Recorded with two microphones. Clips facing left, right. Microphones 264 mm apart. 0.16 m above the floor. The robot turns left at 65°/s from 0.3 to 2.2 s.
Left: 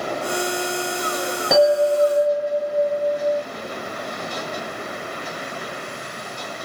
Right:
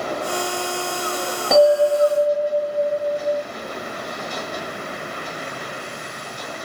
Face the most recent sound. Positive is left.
turn(degrees=-35)